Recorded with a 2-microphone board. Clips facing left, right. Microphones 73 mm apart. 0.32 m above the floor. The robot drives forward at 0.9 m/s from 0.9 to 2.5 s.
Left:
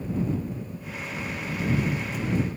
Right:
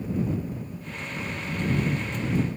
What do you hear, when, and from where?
Only background noise.